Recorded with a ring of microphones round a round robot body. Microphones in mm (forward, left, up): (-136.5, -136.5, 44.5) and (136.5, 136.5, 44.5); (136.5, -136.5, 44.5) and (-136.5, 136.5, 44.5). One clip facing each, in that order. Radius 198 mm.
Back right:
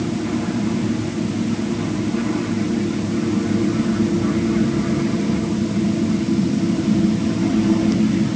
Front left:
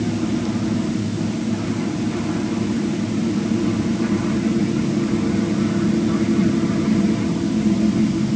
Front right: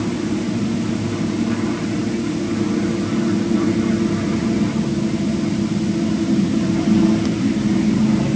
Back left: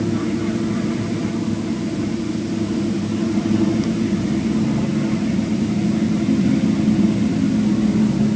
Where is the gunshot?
I don't hear a gunshot.